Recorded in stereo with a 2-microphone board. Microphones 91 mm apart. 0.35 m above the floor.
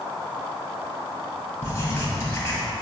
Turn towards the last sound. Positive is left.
turn(degrees=25)  # may be behind; listen again after turning